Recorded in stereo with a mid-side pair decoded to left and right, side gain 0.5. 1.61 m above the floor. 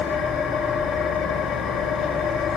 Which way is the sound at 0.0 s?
70° left.